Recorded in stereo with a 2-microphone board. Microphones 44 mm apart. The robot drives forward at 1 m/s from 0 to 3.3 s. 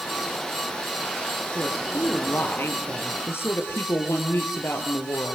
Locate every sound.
1.6 s a woman speaking: 65° left (ahead or behind), 6.5 m; by 5.3 s 75° left (ahead or behind), 6.5 m